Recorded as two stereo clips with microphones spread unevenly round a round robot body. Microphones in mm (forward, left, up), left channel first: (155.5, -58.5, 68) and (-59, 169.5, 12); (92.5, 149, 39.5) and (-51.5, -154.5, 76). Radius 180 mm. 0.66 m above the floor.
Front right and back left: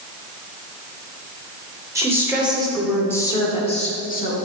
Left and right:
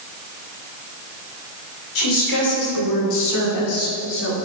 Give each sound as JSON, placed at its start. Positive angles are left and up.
{"t": 1.9, "sound": "a woman speaking", "azimuth_deg": 55, "distance_m": 2.5}